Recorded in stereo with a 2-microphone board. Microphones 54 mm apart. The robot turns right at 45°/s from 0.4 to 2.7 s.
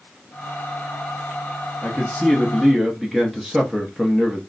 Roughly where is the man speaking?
Behind left.